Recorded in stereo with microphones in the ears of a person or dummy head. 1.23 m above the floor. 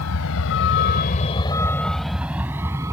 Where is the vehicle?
85° left; by 2.9 s 20° right (ahead or behind).